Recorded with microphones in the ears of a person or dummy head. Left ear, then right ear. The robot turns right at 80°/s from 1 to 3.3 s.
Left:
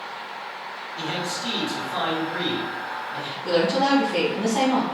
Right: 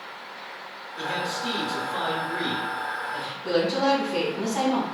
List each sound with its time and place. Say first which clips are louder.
1.0 s a man speaking: right 1 dB; 60° left, 1.9 m; by 3.3 s 120° right, 1.9 m
3.4 s a woman speaking: left 2 dB; centre (ahead or behind), 1.7 m